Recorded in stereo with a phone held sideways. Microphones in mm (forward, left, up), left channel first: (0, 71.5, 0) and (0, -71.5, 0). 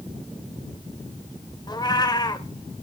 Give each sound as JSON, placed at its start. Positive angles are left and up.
{"t": 1.7, "sound": "a cat meowing", "side_deg": 30, "distance_m": 1.2}